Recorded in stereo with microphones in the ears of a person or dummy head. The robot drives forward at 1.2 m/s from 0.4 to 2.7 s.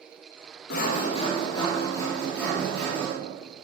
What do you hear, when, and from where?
0.7 s sawing: 65° left (ahead or behind), 0.8 m; by 3.1 s 15° left (ahead or behind), 3 m